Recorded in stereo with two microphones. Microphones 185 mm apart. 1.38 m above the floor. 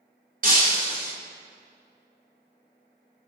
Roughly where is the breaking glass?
Right.